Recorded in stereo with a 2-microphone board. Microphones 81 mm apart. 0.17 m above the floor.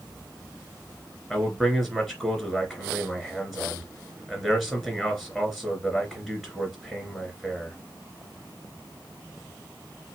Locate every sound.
1.3 s a man speaking: centre (ahead or behind), 2.5 m